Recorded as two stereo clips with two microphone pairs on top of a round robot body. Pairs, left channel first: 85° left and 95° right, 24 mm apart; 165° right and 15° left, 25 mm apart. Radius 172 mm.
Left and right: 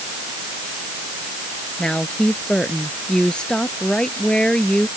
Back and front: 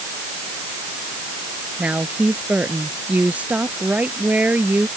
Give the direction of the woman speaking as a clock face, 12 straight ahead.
11 o'clock.